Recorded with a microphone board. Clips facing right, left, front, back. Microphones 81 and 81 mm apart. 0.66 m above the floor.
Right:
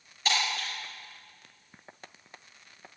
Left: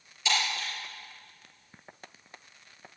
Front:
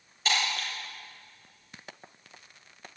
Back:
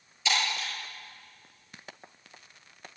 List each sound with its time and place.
0.2 s breaking glass: 45° right, 6 m